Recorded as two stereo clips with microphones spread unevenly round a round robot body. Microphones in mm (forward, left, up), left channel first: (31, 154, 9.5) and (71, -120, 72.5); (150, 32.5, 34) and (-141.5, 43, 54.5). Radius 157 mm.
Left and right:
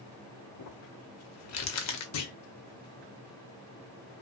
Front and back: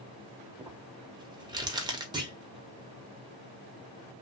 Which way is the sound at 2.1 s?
100° left.